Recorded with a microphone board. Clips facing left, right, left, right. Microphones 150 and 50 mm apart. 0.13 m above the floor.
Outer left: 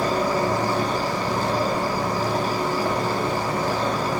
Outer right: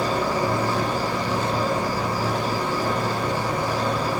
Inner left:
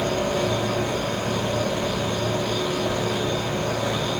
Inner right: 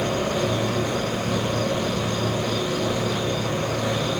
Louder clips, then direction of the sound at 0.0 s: Outer left 1 dB, even; 15° left (ahead or behind).